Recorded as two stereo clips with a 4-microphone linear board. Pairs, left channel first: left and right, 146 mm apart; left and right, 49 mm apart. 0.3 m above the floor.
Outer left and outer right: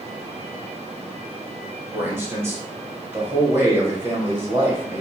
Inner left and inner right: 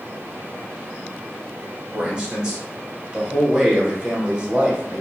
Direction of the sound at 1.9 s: 20° right (ahead or behind).